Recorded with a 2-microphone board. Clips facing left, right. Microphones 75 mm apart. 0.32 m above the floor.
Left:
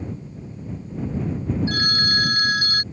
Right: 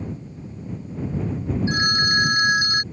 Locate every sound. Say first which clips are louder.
1.7 s a phone ringing: right 2 dB; 20° right (ahead or behind)